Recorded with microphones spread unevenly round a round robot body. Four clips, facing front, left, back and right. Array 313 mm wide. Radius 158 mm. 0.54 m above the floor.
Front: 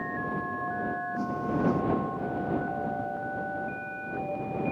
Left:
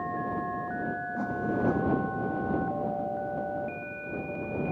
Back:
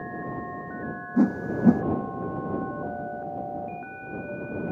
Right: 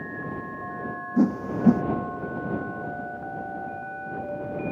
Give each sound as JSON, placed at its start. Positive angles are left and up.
{"t": 1.2, "sound": "a whoosh", "azimuth_deg": -135}